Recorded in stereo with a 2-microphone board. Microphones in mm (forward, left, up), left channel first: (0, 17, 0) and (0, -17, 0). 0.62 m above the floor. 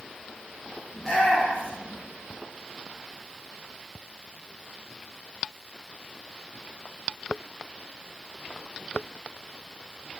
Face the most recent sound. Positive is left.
turn(degrees=10)  # may be behind; listen again after turning